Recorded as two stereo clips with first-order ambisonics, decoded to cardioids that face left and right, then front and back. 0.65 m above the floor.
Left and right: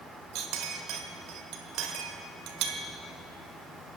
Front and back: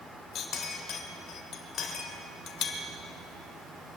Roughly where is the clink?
Ahead right.